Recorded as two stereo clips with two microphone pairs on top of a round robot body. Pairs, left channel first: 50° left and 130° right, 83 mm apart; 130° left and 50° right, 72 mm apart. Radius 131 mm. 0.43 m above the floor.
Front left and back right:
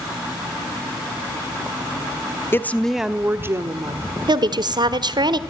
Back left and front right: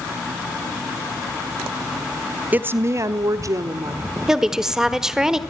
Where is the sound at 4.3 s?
135° right, 1.4 m.